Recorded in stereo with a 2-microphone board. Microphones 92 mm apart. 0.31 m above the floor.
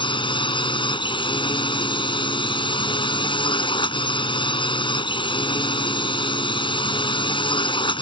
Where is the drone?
65° left (ahead or behind).